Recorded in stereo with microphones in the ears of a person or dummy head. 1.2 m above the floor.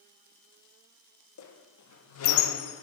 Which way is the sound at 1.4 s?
85° left.